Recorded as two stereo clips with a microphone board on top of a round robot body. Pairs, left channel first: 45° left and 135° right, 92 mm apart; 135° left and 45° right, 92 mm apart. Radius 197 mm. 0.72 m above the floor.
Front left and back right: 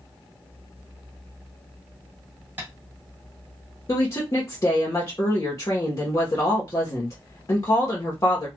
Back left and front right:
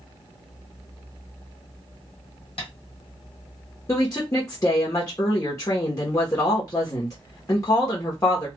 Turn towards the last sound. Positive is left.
turn(degrees=90)